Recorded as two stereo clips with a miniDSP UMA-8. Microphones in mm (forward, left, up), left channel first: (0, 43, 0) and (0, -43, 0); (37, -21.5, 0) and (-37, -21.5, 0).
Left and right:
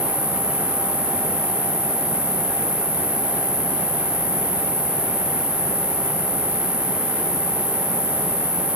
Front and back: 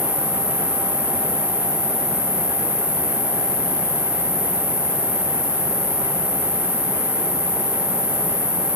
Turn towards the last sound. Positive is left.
turn(degrees=-50)